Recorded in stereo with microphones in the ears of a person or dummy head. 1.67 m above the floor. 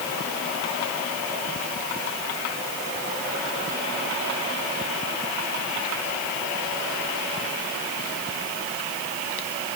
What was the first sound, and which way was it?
Only background noise.